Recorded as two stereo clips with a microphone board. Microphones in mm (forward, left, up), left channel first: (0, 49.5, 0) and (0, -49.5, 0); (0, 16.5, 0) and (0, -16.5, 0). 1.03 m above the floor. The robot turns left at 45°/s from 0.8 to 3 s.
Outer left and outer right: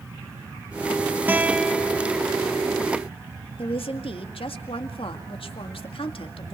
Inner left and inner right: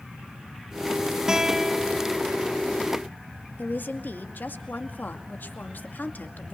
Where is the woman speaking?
65° left (ahead or behind), 2 m.